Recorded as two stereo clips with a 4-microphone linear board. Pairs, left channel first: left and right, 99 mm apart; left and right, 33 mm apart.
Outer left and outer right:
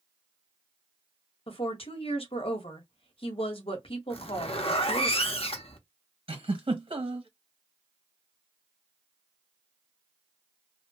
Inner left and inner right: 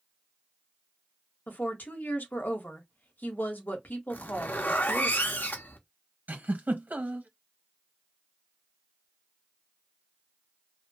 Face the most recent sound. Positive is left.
turn(degrees=-75)  # may be behind; listen again after turning